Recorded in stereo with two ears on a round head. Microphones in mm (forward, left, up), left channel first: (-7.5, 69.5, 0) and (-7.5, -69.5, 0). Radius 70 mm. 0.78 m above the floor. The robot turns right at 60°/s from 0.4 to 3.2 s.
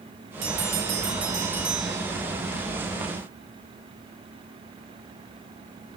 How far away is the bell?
About 1.6 m.